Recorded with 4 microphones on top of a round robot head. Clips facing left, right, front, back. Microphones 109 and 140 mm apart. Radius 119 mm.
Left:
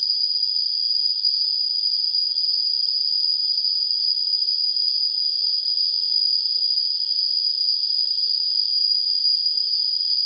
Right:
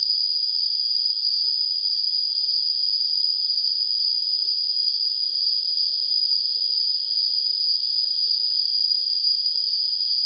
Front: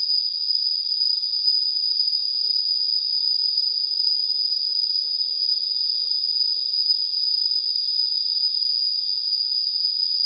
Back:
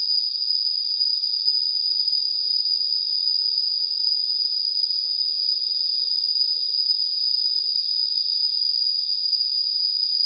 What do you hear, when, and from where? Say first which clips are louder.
0.0 s an insect: left 1 dB, even; 110° right, 1.1 m